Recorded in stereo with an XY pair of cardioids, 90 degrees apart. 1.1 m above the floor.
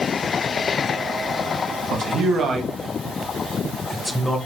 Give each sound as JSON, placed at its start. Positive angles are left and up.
{"t": 1.9, "sound": "a man speaking", "azimuth_deg": -70, "distance_m": 1.3}